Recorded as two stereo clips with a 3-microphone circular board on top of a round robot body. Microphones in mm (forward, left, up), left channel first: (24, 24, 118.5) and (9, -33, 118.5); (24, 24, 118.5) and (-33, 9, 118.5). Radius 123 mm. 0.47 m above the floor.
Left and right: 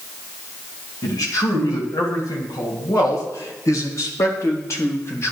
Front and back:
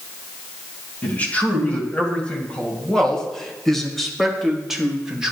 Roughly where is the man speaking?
Left.